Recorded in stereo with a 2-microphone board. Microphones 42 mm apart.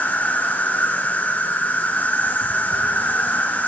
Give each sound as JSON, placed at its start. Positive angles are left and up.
{"t": 0.0, "sound": "an insect", "side_deg": 40, "distance_m": 1.2}